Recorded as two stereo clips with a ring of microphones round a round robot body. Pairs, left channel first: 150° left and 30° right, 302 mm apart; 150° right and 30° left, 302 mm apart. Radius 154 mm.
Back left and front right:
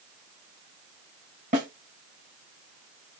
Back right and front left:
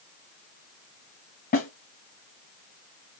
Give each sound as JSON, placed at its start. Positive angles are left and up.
{"t": 1.5, "sound": "a snare drum", "azimuth_deg": -90, "distance_m": 1.6}